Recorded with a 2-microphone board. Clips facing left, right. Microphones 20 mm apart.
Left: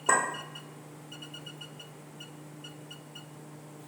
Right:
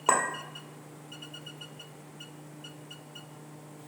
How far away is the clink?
About 1.5 m.